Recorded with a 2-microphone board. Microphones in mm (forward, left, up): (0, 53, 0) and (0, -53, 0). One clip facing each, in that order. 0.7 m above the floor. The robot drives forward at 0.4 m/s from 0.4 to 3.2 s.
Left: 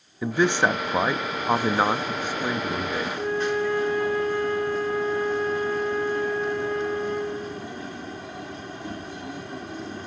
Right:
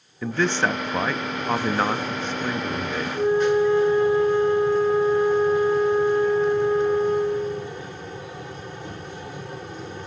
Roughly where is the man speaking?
Centre.